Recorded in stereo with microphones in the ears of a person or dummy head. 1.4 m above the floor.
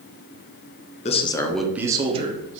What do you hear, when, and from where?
1.1 s a man speaking: 35° left (ahead or behind), 0.6 m; by 2.6 s 40° right (ahead or behind), 1.1 m